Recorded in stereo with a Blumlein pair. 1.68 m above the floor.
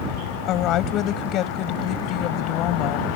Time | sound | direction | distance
0.5 | a woman speaking | 35° left | ?